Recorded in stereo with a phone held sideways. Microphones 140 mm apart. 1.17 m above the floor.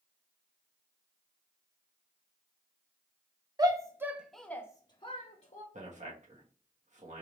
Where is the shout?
25° right (ahead or behind), 0.9 m; by 5.6 s 55° left (ahead or behind), 0.9 m.